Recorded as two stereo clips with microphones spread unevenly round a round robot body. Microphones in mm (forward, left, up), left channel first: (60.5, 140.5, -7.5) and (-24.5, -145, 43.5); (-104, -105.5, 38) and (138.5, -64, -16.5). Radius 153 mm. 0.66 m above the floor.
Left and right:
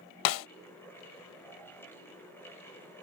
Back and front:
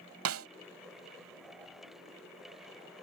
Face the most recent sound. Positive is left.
turn(degrees=55)